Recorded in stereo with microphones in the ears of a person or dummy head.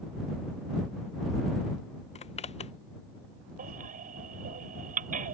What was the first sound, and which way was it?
A zipper, 30° left (ahead or behind).